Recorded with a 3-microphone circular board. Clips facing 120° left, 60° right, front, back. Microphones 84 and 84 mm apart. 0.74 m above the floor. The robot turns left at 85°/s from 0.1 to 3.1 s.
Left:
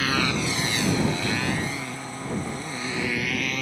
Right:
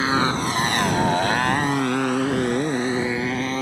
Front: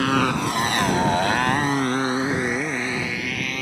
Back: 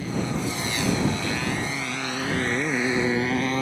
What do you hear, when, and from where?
0.0 s a motorcycle: straight ahead; by 3.6 s 120° right